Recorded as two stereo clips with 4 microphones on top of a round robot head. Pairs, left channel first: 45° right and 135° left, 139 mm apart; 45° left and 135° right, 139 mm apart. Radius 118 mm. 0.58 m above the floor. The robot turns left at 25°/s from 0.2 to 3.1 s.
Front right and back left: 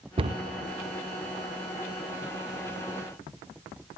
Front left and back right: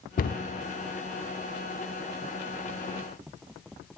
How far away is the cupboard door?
About 0.5 m.